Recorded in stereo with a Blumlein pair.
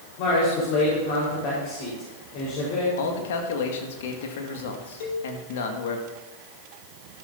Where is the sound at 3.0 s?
55° left, 2 m.